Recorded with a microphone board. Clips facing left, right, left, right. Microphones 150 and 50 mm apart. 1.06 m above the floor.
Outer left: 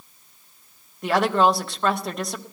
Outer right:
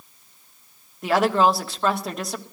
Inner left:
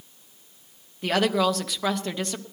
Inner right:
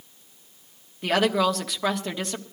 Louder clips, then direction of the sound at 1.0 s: Even, inner right 1 dB; centre (ahead or behind).